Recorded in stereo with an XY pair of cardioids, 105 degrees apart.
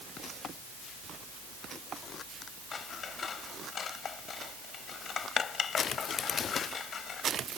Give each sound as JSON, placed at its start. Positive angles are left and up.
{"t": 2.7, "sound": "scissors", "azimuth_deg": 45}